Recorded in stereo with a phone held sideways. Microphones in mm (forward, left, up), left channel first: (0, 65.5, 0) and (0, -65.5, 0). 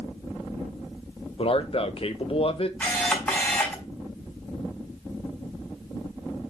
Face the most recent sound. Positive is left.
turn(degrees=10)  # may be behind; listen again after turning